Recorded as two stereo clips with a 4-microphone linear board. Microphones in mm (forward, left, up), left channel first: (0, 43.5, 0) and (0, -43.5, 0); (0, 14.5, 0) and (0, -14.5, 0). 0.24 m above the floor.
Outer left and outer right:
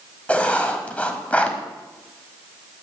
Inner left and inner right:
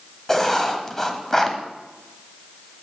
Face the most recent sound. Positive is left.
turn(degrees=15)  # may be behind; listen again after turning